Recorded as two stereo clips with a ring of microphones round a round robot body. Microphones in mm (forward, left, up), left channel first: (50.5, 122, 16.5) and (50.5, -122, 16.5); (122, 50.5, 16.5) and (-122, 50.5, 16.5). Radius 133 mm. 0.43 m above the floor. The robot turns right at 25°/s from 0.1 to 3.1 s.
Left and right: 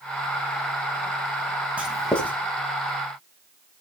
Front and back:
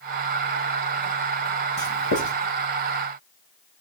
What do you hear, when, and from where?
1.8 s writing: 5° right, 3.5 m; by 2.4 s 10° left, 3.5 m